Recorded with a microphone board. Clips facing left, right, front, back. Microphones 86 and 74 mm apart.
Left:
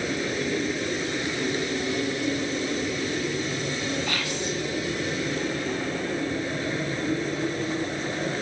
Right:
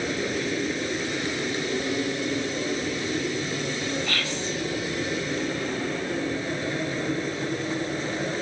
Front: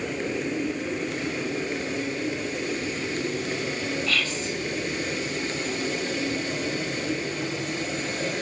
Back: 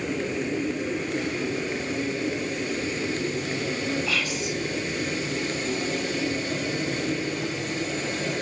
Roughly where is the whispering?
Behind left.